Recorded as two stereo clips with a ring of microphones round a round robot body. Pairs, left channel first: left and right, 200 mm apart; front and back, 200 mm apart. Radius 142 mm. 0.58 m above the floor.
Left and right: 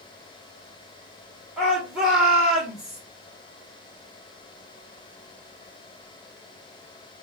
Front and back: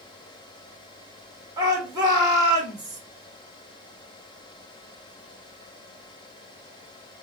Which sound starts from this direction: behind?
A shout, at 1.6 s.